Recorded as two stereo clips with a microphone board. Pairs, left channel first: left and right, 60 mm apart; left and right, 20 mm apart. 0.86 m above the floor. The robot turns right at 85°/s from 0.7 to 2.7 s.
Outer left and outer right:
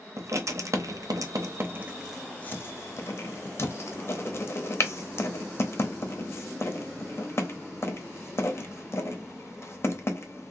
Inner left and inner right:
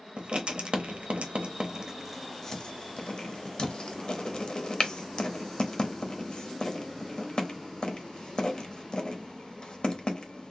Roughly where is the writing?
Right.